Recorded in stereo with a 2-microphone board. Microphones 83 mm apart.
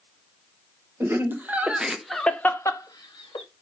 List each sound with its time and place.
1.0 s laughter: 30° right (ahead or behind), 1.1 m; by 3.5 s 75° left (ahead or behind), 0.7 m